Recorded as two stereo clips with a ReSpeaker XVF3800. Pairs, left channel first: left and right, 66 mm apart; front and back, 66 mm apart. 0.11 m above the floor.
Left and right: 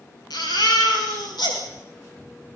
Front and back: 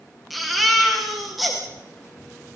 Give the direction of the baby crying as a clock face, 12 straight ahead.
9 o'clock.